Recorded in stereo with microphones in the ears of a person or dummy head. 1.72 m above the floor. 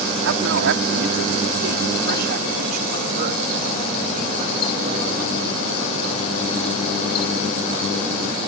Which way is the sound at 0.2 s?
75° right (ahead or behind).